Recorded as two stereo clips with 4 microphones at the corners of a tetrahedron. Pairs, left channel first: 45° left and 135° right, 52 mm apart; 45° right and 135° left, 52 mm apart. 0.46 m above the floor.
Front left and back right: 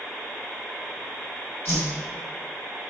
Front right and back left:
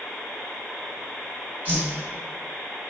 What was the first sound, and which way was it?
A whoosh, 80° left.